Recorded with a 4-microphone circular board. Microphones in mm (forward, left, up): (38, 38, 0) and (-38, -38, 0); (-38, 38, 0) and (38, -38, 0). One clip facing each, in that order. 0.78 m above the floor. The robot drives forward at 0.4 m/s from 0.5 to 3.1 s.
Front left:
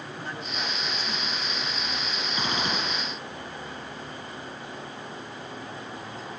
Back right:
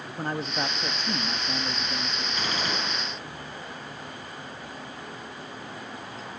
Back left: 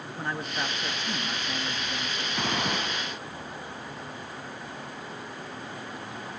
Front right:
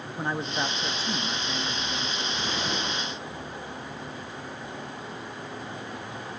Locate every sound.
0.2 s a man speaking: 110° right, 0.8 m; by 2.2 s 145° right, 1.2 m
2.4 s a gunshot: 110° left, 4 m; by 3.1 s 115° left, 4 m